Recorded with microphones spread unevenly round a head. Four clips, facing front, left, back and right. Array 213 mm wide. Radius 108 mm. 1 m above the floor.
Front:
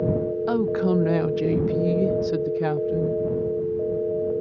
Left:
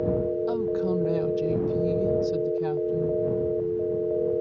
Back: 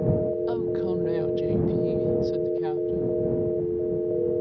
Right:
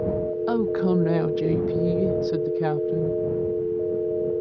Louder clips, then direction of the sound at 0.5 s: Right 3 dB, front 4 dB; 40° right.